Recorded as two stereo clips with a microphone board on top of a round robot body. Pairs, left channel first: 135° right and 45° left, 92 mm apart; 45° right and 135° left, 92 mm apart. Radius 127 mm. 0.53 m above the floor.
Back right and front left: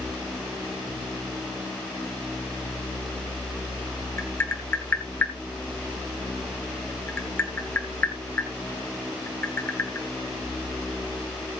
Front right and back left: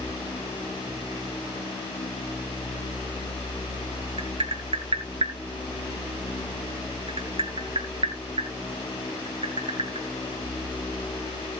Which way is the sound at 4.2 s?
155° left.